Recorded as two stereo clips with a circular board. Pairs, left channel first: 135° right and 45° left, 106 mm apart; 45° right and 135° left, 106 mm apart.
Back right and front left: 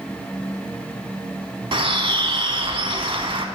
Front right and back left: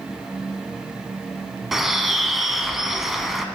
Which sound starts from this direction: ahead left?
A bird, at 1.7 s.